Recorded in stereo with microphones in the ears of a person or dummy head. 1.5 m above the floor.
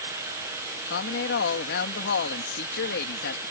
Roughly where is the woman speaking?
Left.